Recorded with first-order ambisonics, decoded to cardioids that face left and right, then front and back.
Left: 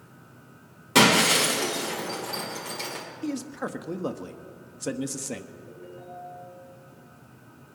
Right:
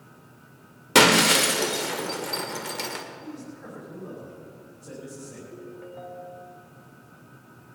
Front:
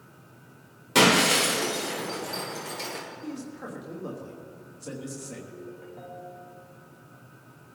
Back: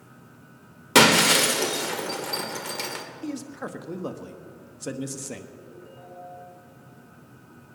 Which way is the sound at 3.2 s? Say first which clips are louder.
Left 8 dB, back 4 dB; 120° left.